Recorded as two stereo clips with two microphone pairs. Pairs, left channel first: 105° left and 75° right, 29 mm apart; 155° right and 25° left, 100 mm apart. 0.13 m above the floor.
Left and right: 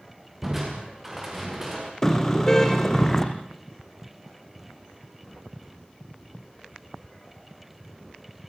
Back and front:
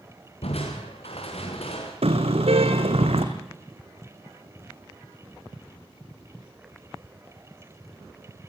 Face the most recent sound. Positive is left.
turn(degrees=30)